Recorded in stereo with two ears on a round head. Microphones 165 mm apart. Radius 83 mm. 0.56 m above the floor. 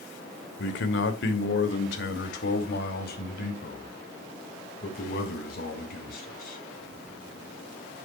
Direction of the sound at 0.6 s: 65° left (ahead or behind).